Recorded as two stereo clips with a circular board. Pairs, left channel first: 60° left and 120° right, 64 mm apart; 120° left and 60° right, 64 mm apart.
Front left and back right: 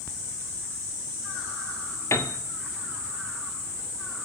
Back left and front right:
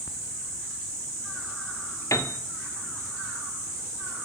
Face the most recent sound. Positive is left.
turn(degrees=95)